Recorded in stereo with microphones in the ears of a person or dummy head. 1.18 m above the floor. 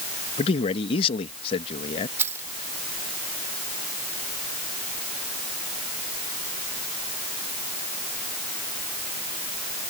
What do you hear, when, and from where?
0.4 s a man speaking: 30° left (ahead or behind)
2.2 s keys jangling: 15° right (ahead or behind)